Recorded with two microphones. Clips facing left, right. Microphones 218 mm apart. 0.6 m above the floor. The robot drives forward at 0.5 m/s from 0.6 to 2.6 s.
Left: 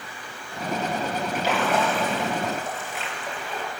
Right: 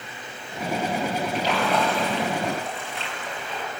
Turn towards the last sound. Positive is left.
turn(degrees=5)  # may be behind; listen again after turning